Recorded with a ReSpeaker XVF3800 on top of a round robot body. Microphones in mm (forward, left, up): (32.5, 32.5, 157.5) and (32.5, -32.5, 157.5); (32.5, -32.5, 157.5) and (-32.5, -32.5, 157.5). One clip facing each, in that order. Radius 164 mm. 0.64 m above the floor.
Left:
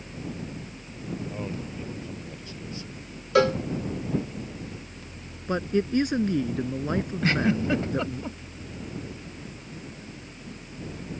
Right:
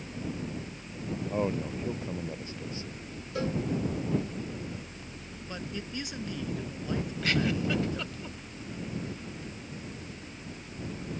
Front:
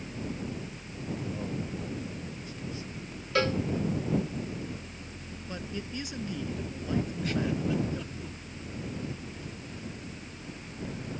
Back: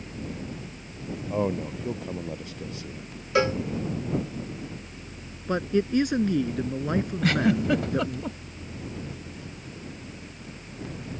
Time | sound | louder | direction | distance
1.3 | a man speaking | right 4 dB, back 8 dB | 150° right | ?
3.4 | a cowbell | left 11 dB, back 4 dB | 105° left | ?
5.5 | a man speaking | left 14 dB, back 15 dB | 140° left | ?
7.2 | a giggle | left 4 dB, back 7 dB | 150° left | ?